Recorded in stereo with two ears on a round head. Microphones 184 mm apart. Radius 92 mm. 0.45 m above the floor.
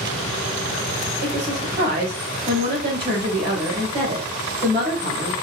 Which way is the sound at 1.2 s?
50° right (ahead or behind).